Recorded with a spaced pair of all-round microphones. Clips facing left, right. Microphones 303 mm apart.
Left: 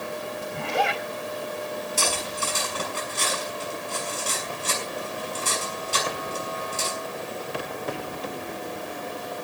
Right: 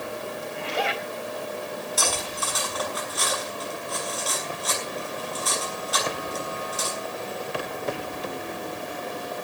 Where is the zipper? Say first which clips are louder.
Left 2 dB; 55° left (ahead or behind), 3.5 m.